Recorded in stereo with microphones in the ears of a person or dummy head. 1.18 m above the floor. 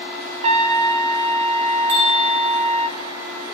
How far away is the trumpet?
About 0.6 m.